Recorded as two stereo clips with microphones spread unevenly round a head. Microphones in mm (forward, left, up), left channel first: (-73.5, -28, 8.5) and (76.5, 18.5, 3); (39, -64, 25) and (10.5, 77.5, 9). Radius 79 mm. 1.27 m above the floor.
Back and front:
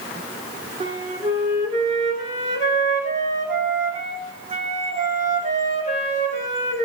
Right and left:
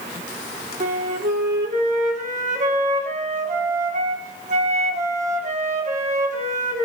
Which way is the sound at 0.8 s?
65° left.